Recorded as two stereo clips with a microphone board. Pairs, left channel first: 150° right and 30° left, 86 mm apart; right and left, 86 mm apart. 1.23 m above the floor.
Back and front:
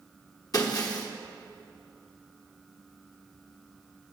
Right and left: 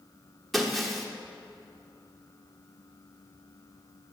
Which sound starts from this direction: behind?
Breaking glass, at 0.5 s.